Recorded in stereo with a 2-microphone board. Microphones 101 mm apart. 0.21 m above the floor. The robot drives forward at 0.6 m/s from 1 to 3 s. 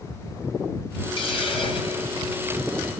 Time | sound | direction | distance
1.2 | a hiss | 60° left (ahead or behind) | 2.5 m